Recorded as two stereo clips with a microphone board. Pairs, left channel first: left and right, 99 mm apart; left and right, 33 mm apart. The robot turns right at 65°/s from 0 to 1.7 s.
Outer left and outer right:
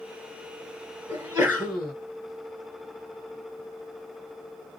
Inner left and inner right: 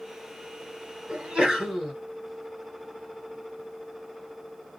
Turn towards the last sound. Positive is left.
turn(degrees=-15)